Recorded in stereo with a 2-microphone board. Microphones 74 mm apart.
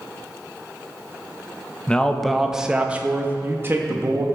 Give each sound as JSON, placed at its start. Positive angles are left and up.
{"t": 1.9, "sound": "a man speaking", "side_deg": 15, "distance_m": 0.8}